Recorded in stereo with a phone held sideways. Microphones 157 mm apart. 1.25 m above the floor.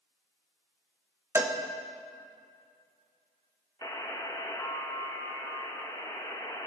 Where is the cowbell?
15° right (ahead or behind), 0.5 m.